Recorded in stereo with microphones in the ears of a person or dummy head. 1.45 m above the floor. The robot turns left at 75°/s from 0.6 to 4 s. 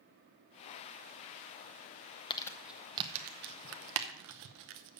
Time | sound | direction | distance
2.3 | crumpling | 25° left (ahead or behind) | 0.8 m